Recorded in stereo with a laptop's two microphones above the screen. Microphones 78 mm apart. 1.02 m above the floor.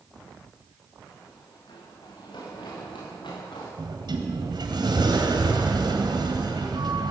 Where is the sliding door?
70° right (ahead or behind), 3.5 m.